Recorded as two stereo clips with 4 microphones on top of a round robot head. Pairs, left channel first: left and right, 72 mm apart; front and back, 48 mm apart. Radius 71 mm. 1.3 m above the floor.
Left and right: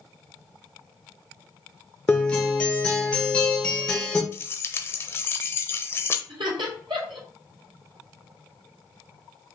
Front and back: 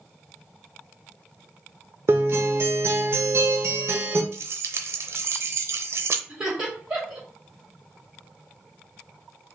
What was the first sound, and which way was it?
A guitar, 160° left.